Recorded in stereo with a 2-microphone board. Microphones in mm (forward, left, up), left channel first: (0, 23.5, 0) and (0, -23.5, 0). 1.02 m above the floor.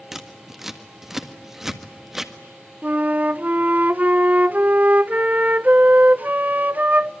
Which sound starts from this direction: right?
A flute, at 2.8 s.